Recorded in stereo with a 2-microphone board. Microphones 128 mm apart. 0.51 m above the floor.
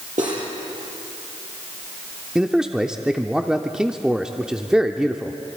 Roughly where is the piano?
I don't hear a piano.